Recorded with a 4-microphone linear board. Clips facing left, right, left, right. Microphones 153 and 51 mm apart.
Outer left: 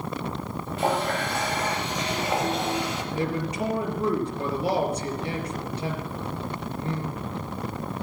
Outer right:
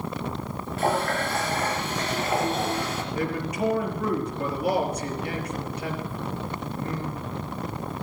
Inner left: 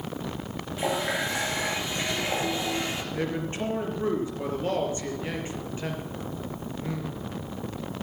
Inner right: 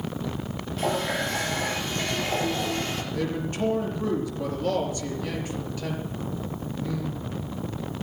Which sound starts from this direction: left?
A man speaking, at 3.1 s.